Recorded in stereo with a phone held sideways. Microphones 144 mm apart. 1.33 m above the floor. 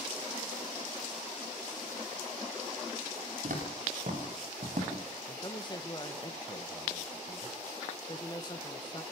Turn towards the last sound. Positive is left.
turn(degrees=30)  # may be behind; listen again after turning